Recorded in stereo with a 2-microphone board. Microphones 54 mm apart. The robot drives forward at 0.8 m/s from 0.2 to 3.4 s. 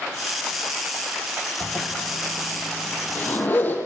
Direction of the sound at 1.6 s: 25° left (ahead or behind).